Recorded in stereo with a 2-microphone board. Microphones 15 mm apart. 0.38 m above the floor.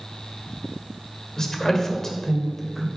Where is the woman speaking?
40° left (ahead or behind), 1.3 m; by 2.9 s 15° left (ahead or behind), 1.5 m.